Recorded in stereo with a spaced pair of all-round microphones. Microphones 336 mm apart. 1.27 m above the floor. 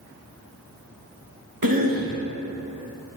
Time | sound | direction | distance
1.6 | a cough | 85° right | 1.2 m